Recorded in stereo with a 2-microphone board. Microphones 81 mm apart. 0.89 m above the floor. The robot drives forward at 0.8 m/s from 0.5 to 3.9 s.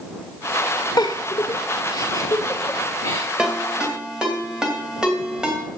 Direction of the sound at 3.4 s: 15° right (ahead or behind).